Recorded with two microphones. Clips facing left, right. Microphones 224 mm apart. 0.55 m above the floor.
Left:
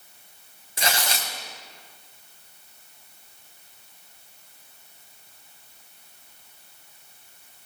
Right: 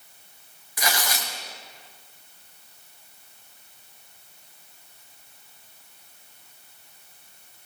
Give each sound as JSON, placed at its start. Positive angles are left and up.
{"t": 0.8, "sound": "tearing paper", "side_deg": 25, "distance_m": 3.0}